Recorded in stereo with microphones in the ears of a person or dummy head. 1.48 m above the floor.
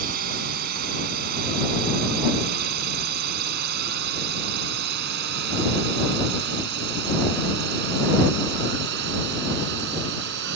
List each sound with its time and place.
0.0 s a drone: 50° right (ahead or behind); by 10.6 s 65° right (ahead or behind)